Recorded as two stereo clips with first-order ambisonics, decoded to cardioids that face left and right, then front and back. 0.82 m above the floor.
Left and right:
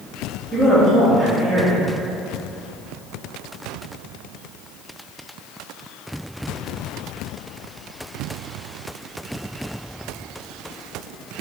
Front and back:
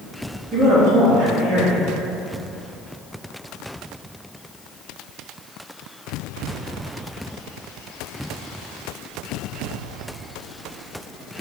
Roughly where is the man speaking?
Behind.